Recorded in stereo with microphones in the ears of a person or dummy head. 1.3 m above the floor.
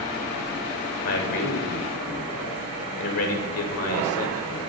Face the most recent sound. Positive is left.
turn(degrees=75)  # may be behind; listen again after turning